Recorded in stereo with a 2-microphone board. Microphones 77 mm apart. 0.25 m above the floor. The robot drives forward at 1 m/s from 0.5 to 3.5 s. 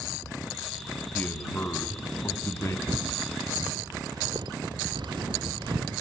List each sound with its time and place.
1.1 s a man speaking: 25° left (ahead or behind), 2.5 m; by 2.8 s 40° left (ahead or behind), 1.6 m
2.9 s footsteps: 35° right (ahead or behind), 1.2 m; by 6.0 s 75° right (ahead or behind), 1.8 m